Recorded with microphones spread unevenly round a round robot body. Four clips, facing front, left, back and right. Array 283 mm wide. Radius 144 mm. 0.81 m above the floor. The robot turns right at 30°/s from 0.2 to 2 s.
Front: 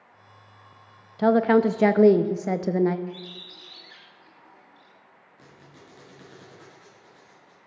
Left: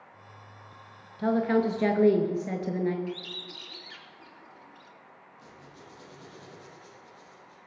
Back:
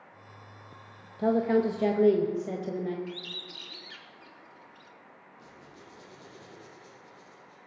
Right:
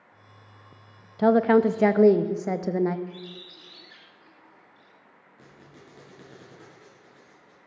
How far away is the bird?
About 3.5 m.